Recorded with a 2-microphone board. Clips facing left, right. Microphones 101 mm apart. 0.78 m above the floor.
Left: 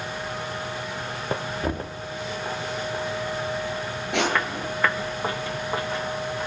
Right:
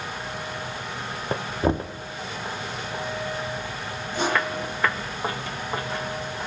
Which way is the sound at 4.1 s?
80° left.